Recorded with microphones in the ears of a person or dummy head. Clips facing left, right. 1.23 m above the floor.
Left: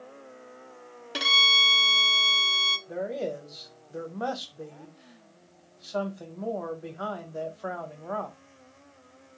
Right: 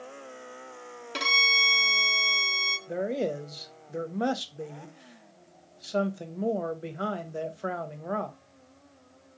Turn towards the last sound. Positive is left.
turn(degrees=-25)  # may be behind; listen again after turning